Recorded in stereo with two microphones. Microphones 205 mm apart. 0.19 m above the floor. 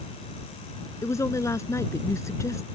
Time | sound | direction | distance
1.0 | a woman speaking | 15° left (ahead or behind) | ?